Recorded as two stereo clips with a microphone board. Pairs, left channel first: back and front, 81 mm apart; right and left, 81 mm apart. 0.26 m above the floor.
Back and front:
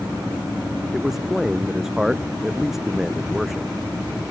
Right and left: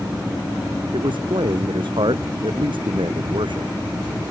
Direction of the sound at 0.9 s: 85° left.